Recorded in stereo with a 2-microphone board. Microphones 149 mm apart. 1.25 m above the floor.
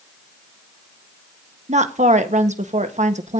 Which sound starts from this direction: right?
A woman speaking, at 1.7 s.